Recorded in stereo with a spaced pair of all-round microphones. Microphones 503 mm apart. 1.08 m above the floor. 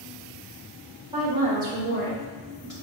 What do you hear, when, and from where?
1.1 s a woman speaking: 10° right (ahead or behind), 1.8 m; by 2.7 s 40° right (ahead or behind), 1.5 m